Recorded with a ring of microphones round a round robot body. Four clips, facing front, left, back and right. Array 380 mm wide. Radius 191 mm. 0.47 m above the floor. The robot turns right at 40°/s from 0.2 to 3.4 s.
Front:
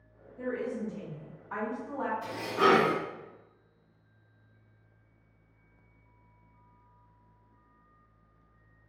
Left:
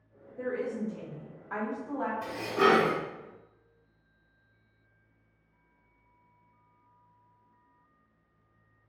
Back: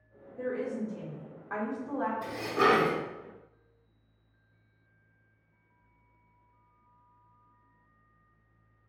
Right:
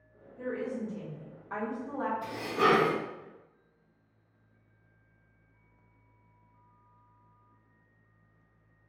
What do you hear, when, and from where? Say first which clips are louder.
0.4 s a woman speaking: left 2 dB, back 1 dB; 125° left, 1.1 m; by 2.1 s 165° right, 1.1 m
2.2 s dishes clattering: left 3 dB, front 1 dB; 145° left, 0.9 m; by 3.0 s 175° left, 0.9 m